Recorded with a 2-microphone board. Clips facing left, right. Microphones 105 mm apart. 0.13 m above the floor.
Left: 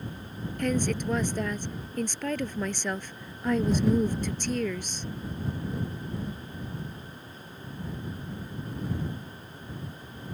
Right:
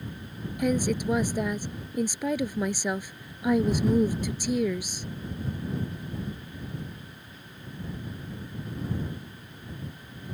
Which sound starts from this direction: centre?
A woman speaking, at 0.6 s.